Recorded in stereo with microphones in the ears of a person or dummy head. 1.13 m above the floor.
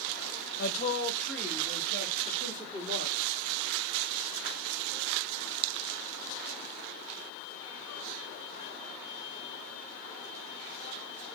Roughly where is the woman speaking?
Left.